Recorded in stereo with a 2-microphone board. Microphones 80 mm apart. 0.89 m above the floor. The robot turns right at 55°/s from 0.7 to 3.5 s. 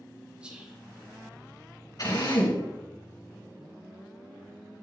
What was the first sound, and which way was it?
Whispering, 10° right (ahead or behind).